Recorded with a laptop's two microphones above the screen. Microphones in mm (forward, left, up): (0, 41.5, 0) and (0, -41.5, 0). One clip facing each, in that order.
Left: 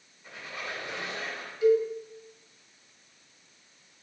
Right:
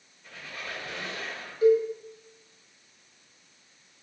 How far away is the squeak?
About 1.9 m.